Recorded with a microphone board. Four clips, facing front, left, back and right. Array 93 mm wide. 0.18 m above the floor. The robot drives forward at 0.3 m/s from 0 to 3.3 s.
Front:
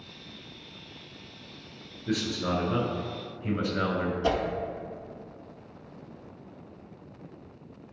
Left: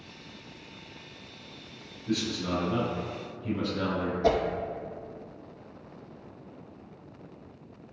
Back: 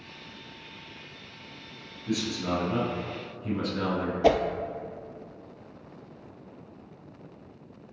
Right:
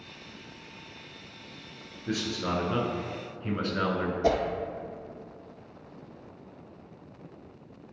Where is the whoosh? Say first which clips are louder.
Left 1 dB, back 7 dB; 175° right, 0.6 m.